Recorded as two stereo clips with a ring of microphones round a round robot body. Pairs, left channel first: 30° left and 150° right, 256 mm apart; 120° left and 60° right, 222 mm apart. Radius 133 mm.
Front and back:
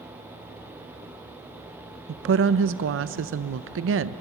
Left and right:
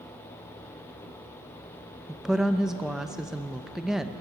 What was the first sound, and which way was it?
A woman speaking, 145° right.